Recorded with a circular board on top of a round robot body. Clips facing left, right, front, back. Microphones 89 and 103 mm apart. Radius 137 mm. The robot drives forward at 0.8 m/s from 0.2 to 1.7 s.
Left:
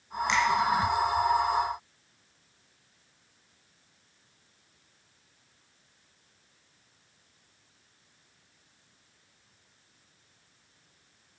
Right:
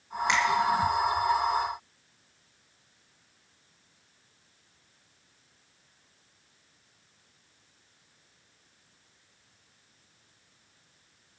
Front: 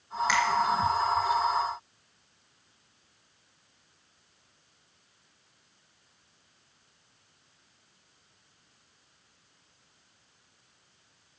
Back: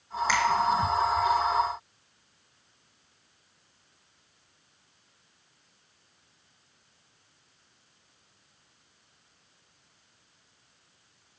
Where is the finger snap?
130° right, 4 m.